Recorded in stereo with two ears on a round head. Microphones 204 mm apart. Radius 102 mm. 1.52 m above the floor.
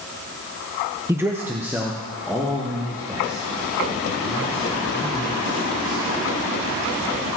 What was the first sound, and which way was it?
A man speaking, 10° right (ahead or behind).